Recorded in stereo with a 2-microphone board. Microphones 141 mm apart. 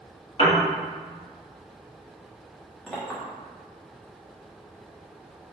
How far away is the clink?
About 1.4 m.